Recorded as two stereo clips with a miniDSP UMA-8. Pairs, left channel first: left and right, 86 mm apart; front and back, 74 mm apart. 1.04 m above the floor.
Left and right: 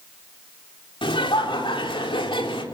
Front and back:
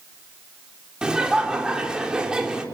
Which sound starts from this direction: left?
Laughter, at 1.0 s.